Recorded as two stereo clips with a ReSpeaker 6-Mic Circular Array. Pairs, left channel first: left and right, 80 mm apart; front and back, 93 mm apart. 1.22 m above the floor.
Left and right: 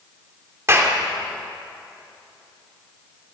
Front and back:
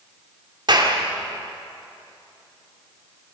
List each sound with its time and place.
0.7 s a clap: 145° right, 3 m